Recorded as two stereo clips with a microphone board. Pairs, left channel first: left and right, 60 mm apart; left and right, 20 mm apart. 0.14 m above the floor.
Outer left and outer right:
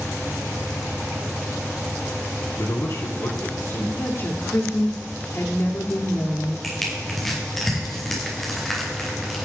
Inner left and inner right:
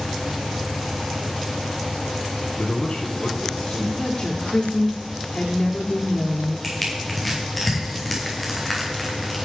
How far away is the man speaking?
About 3.5 m.